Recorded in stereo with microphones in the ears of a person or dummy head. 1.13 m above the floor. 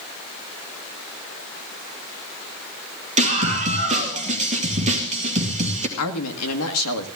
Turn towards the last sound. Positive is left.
turn(degrees=80)